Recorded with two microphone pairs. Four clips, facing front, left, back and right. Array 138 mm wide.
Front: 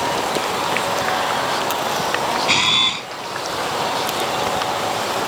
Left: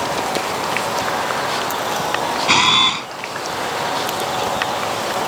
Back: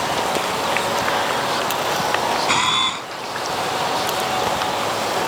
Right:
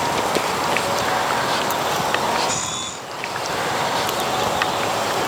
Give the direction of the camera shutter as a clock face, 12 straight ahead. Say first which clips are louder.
Left 10 dB, back 2 dB; 9 o'clock.